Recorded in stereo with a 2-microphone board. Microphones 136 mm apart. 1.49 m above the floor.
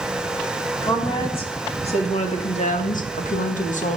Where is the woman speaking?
40° left (ahead or behind), 3.5 m; by 4.0 s 65° left (ahead or behind), 1.9 m.